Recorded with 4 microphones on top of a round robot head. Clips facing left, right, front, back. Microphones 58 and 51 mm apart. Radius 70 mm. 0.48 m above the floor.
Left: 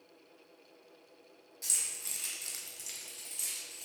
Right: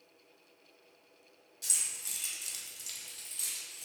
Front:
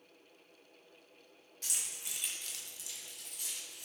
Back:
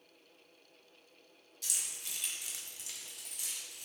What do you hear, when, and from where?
1.6 s keys jangling: 40° left, 1.5 m; by 3.9 s straight behind, 2.5 m